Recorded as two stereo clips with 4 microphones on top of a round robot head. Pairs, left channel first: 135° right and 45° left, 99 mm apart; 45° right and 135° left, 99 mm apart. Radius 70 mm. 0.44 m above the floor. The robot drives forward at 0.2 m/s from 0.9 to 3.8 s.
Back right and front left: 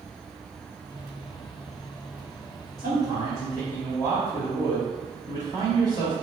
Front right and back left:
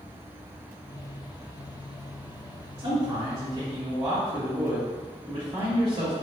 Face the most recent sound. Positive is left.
turn(degrees=-175)